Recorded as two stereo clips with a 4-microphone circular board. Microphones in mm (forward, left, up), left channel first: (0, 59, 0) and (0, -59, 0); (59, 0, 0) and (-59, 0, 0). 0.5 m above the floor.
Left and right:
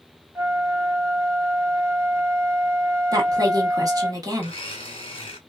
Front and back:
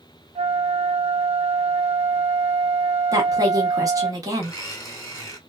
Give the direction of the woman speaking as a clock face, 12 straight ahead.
4 o'clock.